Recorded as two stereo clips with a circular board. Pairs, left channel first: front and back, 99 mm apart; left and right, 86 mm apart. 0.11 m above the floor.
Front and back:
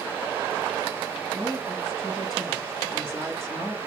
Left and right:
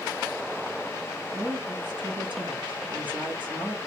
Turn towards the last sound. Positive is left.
turn(degrees=-80)